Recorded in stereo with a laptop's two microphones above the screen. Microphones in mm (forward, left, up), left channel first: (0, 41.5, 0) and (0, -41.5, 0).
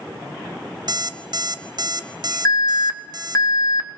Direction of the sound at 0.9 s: 55° right (ahead or behind).